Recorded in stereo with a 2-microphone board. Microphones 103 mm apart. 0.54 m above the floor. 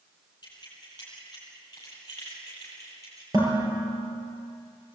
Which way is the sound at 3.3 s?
40° right (ahead or behind).